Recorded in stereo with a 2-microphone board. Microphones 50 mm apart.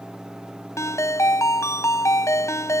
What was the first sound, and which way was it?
A ringtone, 85° left.